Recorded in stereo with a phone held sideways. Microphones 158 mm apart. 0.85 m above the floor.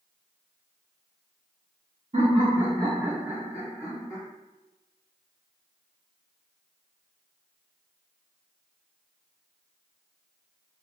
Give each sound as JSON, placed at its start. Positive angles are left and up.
{"t": 2.1, "sound": "laughter", "side_deg": -50, "distance_m": 1.0}